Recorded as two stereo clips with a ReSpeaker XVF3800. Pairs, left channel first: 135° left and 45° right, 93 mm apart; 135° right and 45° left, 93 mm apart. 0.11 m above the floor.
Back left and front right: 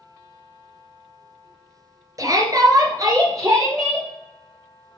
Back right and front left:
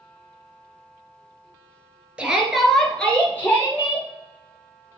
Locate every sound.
2.2 s a shout: 25° right, 2 m; by 4.1 s 95° right, 2.5 m